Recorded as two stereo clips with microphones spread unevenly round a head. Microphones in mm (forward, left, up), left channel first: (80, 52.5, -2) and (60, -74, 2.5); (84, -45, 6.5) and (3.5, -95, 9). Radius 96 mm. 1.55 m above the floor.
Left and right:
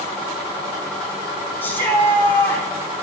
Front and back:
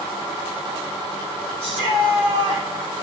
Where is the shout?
160° left, 4.5 m.